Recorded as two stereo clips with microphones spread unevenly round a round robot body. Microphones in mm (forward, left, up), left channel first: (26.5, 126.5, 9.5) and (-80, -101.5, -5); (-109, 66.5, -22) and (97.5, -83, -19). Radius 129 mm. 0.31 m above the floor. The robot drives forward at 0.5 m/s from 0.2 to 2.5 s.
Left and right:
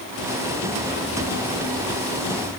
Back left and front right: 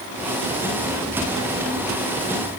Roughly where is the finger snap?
No finger snap in this recording.